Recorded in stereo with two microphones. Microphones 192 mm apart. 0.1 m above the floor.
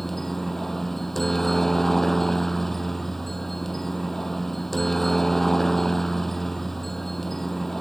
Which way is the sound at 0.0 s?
Centre (ahead or behind).